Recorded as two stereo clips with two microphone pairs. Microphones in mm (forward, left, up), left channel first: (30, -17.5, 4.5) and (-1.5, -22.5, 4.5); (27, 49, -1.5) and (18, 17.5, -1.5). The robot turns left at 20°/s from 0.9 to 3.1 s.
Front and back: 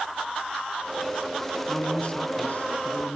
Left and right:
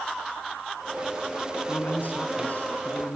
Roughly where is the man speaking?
Ahead left.